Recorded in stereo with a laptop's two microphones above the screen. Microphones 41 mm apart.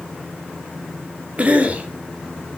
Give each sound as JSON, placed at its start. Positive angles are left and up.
{"t": 1.4, "sound": "a cough", "side_deg": -35, "distance_m": 2.5}